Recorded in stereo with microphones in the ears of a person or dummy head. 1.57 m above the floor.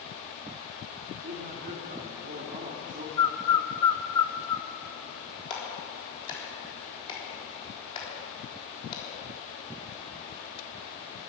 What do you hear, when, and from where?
1.2 s a man speaking: 40° right (ahead or behind), 2.5 m
3.2 s a bird: 25° left (ahead or behind), 0.8 m
5.5 s a clap: 25° left (ahead or behind), 3.5 m